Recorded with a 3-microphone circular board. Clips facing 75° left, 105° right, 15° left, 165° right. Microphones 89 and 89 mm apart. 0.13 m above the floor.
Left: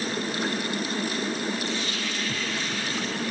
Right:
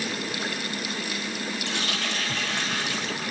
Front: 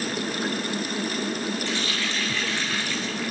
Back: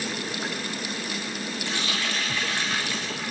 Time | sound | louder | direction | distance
1.7 | a running tap | even, front 1 dB | 90° right | 5.5 m